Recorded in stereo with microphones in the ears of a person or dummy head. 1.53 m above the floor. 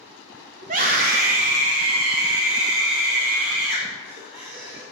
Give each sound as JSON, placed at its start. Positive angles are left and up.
{"t": 0.6, "sound": "a scream", "side_deg": -45, "distance_m": 1.1}